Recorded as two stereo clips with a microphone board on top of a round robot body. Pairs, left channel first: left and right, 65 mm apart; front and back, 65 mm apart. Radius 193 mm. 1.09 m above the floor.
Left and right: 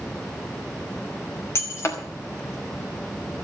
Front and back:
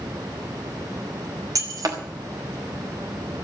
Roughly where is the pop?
No pop in this recording.